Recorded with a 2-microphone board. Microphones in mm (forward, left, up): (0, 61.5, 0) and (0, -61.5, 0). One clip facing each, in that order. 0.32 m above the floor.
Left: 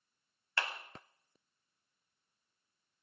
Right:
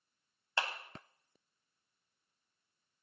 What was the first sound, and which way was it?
A clap, 20° right (ahead or behind).